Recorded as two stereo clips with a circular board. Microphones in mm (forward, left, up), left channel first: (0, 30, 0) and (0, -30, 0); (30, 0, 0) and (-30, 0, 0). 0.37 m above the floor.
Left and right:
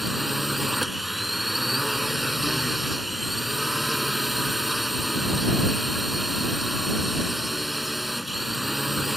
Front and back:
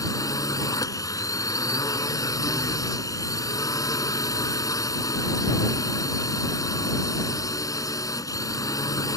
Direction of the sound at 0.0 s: 5° right.